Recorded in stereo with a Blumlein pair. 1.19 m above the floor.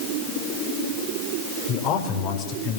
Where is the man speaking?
40° left, 5 m.